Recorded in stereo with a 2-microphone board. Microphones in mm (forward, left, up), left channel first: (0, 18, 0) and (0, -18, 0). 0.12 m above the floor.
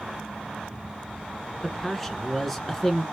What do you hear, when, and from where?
1.6 s a man speaking: 5° left (ahead or behind), 1.1 m